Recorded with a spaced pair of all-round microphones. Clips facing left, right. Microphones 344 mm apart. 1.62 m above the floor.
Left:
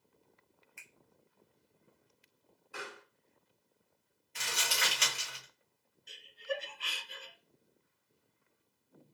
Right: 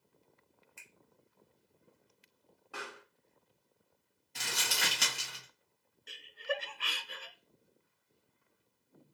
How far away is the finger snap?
About 1.3 m.